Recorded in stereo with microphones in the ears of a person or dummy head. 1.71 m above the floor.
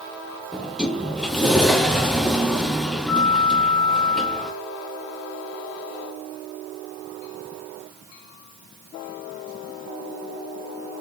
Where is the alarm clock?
No alarm clock in this recording.